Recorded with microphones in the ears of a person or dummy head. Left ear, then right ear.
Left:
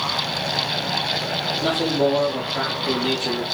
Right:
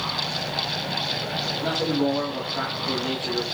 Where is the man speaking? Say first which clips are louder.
Left 4 dB; 80° left, 0.9 m.